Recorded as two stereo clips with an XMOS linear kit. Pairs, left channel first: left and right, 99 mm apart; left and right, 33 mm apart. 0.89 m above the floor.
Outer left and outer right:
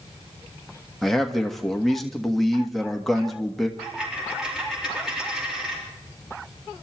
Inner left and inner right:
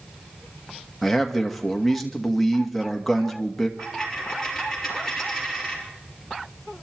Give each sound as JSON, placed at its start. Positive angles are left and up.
{"t": 1.0, "sound": "a man speaking", "side_deg": 5, "distance_m": 1.5}
{"t": 3.8, "sound": "a dropped coin", "side_deg": -5, "distance_m": 4.5}